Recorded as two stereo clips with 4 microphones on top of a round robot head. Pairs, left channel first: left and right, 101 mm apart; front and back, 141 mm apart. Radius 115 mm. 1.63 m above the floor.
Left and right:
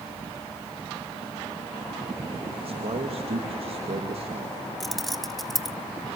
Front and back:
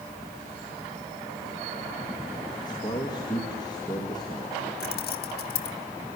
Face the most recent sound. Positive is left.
turn(degrees=0)